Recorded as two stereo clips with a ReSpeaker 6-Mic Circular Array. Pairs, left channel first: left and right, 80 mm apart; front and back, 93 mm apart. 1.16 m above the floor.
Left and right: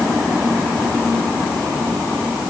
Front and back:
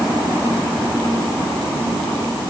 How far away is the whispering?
No whispering in this recording.